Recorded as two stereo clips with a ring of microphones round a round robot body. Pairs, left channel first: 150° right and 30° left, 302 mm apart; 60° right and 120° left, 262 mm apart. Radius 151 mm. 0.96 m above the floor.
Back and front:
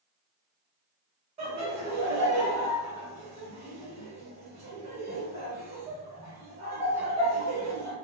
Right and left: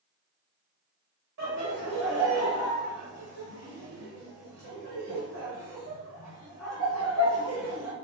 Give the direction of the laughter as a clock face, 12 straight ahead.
9 o'clock.